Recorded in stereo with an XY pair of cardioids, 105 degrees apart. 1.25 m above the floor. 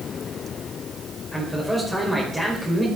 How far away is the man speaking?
About 5 m.